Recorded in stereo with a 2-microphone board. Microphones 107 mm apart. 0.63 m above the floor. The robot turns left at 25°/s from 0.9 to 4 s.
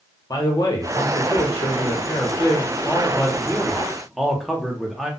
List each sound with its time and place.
0.3 s a man speaking: 80° left, 0.8 m; by 5.1 s 5° left, 0.8 m